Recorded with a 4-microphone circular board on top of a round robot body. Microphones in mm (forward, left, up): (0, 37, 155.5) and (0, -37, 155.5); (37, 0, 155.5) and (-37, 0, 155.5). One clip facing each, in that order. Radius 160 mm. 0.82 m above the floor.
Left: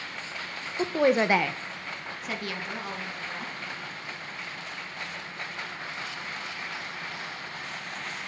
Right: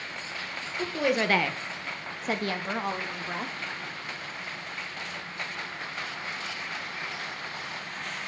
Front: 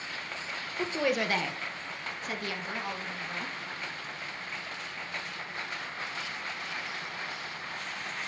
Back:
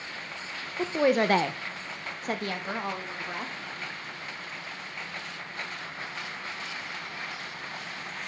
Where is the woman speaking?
110° left, 0.9 m; by 3.5 s 125° right, 2.5 m.